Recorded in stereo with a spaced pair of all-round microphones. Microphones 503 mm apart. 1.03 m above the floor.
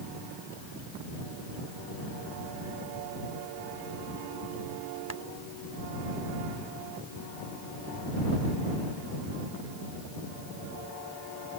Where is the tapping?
30° left (ahead or behind).